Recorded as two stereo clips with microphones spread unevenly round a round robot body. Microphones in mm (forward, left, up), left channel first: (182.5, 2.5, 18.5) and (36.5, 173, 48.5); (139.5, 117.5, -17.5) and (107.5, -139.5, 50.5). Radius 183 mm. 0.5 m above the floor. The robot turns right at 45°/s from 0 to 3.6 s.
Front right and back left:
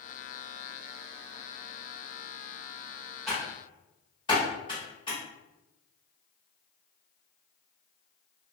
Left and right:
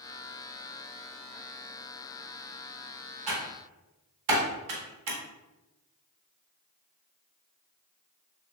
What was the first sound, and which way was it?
Typing on a keyboard, 135° right.